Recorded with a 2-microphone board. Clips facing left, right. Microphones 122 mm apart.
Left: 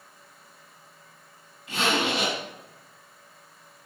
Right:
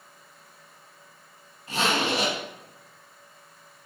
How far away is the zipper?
About 1.7 m.